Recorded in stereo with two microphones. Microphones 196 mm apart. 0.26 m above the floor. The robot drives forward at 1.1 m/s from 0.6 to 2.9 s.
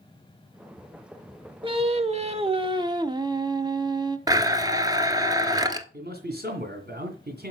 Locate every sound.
1.6 s singing: 25° right (ahead or behind), 1.0 m; by 4.2 s 20° right (ahead or behind), 1.1 m
4.3 s a blender: 20° right (ahead or behind), 0.9 m
5.9 s a man speaking: 55° right (ahead or behind), 2 m